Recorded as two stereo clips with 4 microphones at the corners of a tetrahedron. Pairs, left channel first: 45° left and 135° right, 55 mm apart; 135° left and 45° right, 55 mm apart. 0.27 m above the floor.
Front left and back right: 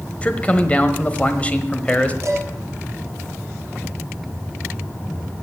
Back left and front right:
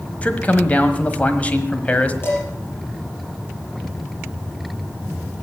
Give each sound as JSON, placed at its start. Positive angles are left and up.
{"t": 0.2, "sound": "a man speaking", "azimuth_deg": 95, "distance_m": 1.2}
{"t": 2.2, "sound": "dishes clattering", "azimuth_deg": -175, "distance_m": 5.0}